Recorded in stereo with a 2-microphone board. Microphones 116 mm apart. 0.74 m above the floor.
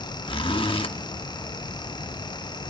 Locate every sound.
0.3 s a zipper: 45° left (ahead or behind), 1.2 m